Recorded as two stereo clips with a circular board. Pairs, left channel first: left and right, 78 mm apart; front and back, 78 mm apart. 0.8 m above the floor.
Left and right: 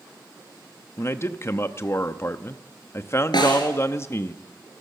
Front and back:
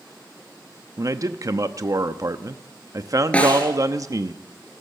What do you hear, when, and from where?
1.0 s a man speaking: 140° left, 0.8 m
3.3 s a snare drum: 70° left, 3 m